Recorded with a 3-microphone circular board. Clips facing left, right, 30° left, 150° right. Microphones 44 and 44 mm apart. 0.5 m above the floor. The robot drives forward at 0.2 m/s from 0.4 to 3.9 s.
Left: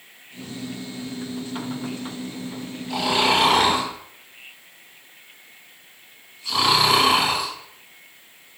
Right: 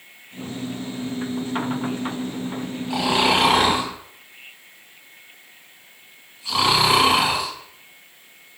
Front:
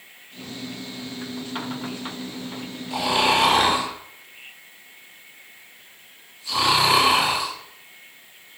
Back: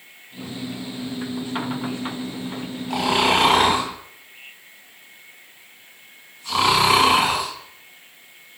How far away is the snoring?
About 1.3 m.